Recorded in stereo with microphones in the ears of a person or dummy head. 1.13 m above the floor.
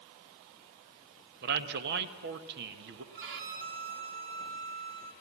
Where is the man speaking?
50° right (ahead or behind), 1.1 m.